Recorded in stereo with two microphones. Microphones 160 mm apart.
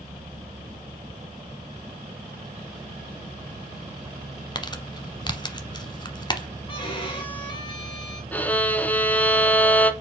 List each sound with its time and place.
4.5 s crumpling: 30° left (ahead or behind), 0.9 m
6.7 s a violin: 30° left (ahead or behind), 1.8 m
8.3 s a violin: 10° left (ahead or behind), 0.7 m